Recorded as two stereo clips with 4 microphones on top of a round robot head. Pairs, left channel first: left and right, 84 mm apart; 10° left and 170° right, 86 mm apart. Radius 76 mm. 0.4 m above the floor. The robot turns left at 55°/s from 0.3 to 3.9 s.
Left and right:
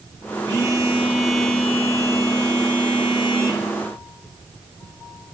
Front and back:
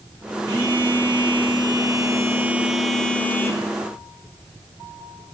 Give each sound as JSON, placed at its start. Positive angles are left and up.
{"t": 0.5, "sound": "a phone buzzing", "azimuth_deg": -130, "distance_m": 6.5}